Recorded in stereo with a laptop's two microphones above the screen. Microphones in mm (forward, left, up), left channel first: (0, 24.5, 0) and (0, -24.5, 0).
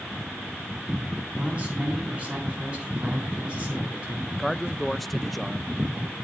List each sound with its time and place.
1.4 s a man speaking: 25° right (ahead or behind), 9 m
4.3 s a man speaking: centre (ahead or behind), 0.6 m